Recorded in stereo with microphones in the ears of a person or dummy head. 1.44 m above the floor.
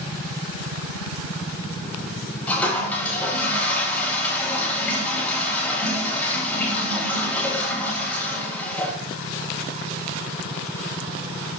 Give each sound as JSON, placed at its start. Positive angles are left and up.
{"t": 2.5, "sound": "a toilet flushing", "side_deg": 10, "distance_m": 3.5}